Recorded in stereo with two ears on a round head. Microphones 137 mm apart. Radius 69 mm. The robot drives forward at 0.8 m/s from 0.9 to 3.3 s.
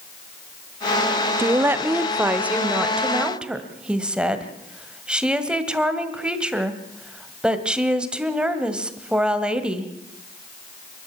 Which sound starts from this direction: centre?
A woman speaking, at 1.4 s.